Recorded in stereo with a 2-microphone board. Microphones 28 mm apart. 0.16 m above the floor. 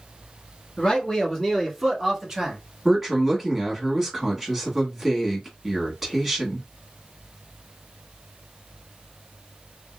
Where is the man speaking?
30° left (ahead or behind), 2 m; by 2.6 s 15° right (ahead or behind), 2 m.